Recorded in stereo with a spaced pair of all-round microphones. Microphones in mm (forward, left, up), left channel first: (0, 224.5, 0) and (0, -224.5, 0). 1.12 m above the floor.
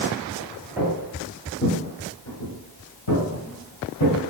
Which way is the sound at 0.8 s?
5° right (ahead or behind).